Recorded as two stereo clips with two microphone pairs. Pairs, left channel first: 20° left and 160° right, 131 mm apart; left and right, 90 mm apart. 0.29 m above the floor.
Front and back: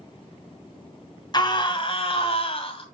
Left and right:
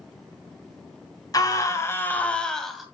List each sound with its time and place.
1.3 s a scream: 65° left, 2 m; by 2.9 s 5° right, 2 m